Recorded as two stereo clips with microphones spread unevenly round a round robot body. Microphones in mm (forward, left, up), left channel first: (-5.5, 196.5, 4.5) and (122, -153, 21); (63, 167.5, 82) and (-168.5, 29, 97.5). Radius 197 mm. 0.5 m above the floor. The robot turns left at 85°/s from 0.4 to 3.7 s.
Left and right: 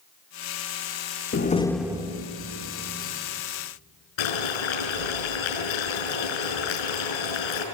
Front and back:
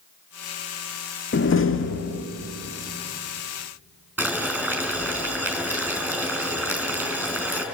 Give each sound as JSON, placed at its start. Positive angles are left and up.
{"t": 1.3, "sound": "a door slam", "azimuth_deg": 60, "distance_m": 1.1}
{"t": 4.2, "sound": "boiling", "azimuth_deg": 130, "distance_m": 6.0}